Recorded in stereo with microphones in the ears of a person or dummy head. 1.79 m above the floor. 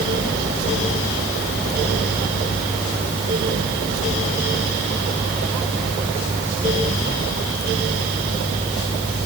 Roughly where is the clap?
I don't hear a clap.